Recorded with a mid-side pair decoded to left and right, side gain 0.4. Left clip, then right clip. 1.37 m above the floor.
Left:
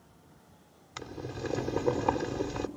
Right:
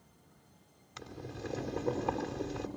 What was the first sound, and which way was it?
Boiling, 55° left.